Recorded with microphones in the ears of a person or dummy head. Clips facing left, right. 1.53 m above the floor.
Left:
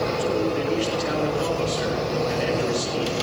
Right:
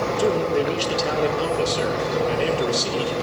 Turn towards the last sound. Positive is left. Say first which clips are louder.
# right 5 dB
turn(degrees=-65)  # may be behind; listen again after turning